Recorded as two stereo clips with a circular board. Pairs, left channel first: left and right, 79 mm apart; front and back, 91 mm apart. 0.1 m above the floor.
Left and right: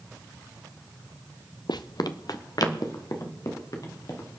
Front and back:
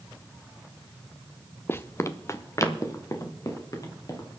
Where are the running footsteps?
65° left, 0.7 m; by 4.4 s 50° left, 4 m.